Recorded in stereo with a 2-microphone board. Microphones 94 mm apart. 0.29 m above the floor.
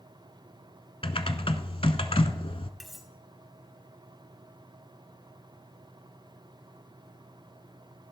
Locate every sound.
1.0 s typing on a keyboard: 85° left, 0.7 m
2.8 s cutlery clinking: centre (ahead or behind), 1.1 m